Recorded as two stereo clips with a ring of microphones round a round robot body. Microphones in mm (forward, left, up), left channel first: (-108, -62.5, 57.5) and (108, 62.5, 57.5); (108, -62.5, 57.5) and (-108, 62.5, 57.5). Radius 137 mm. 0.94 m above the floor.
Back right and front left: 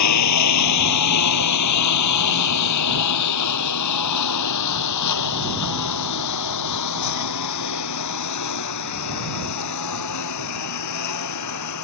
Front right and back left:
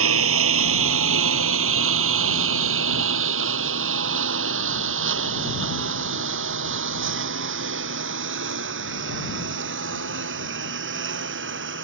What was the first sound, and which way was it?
A lawn mower, 170° right.